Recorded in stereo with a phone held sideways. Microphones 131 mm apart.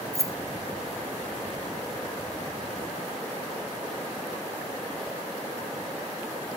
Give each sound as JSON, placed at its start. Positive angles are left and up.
{"t": 0.1, "sound": "keys jangling", "side_deg": -25, "distance_m": 0.7}